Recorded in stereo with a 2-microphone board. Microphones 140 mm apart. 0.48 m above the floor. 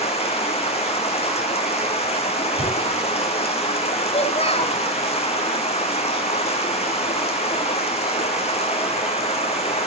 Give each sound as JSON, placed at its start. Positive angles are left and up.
{"t": 0.0, "sound": "running water", "side_deg": 45, "distance_m": 2.5}
{"t": 2.6, "sound": "tearing paper", "side_deg": -50, "distance_m": 5.5}
{"t": 4.1, "sound": "a child speaking", "side_deg": 45, "distance_m": 1.8}